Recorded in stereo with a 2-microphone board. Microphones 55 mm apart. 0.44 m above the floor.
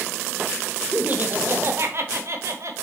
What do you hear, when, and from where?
0.9 s laughter: 30° right (ahead or behind), 0.9 m; by 2.8 s 60° right (ahead or behind), 1.6 m